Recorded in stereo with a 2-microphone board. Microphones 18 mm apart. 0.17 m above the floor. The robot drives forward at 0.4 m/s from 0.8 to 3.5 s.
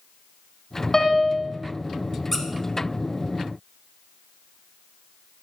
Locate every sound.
0.9 s a piano: 25° left (ahead or behind), 0.9 m
2.3 s a squeak: 10° left (ahead or behind), 1.1 m